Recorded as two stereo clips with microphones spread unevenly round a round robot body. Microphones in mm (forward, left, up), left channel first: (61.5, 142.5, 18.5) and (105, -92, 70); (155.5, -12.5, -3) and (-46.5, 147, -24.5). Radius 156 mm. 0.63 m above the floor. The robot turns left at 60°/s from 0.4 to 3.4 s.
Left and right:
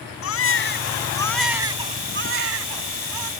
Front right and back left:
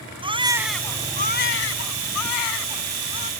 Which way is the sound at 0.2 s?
70° left.